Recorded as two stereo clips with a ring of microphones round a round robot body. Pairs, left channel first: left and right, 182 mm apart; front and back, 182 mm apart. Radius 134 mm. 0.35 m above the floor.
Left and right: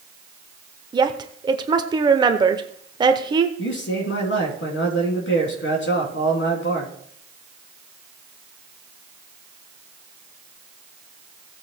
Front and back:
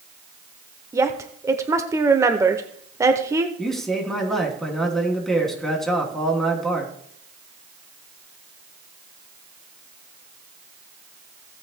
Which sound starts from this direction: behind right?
A woman speaking, at 0.9 s.